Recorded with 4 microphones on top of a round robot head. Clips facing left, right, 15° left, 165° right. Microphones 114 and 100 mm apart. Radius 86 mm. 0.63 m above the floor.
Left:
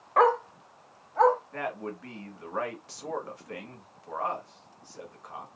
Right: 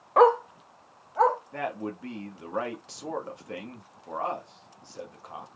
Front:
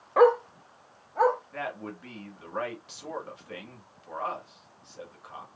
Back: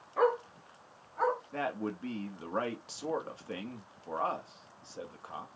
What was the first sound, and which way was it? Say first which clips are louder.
A dog barking: right 3 dB, front 9 dB; 25° right.